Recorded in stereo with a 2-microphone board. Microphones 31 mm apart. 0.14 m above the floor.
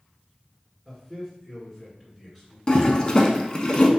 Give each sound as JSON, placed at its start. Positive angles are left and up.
{"t": 0.8, "sound": "a man speaking", "side_deg": -5, "distance_m": 2.0}
{"t": 2.7, "sound": "a toilet flushing", "side_deg": 25, "distance_m": 0.7}